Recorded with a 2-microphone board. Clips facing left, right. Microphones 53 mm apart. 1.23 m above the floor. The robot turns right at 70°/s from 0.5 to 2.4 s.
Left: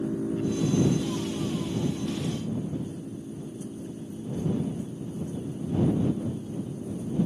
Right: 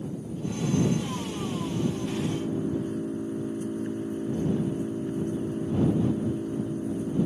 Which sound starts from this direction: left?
An engine running, at 0.0 s.